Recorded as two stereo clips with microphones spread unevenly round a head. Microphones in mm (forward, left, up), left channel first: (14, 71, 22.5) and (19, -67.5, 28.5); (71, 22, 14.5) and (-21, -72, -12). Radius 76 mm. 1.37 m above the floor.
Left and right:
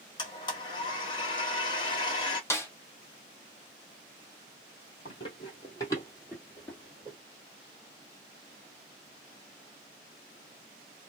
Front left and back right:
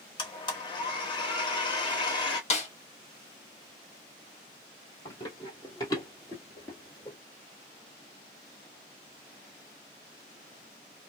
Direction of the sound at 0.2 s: 45° left.